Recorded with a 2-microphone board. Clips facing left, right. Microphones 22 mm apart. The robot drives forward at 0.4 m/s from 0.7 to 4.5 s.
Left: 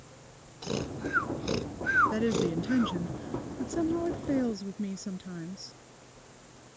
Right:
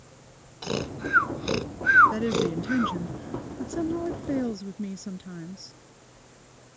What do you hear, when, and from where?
0.6 s snoring: 35° right (ahead or behind); by 3.0 s 40° right (ahead or behind)
2.1 s a woman speaking: centre (ahead or behind)